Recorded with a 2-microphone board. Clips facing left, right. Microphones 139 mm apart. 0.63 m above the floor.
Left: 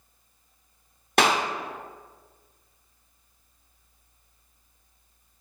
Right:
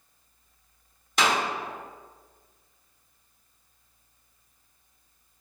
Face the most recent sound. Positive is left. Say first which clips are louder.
# left 3 dB
turn(degrees=55)  # may be behind; listen again after turning